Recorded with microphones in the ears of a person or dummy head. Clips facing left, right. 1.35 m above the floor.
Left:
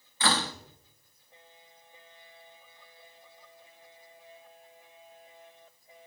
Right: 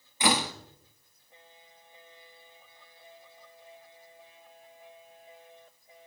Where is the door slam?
10° right (ahead or behind), 1.2 m.